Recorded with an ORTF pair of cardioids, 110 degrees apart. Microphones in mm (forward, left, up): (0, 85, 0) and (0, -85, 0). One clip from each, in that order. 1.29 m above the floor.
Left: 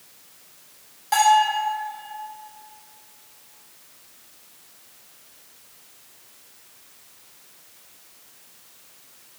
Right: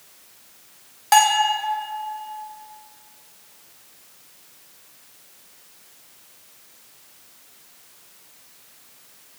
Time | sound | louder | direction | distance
1.1 | a bell | right 1 dB | 55° right | 1.5 m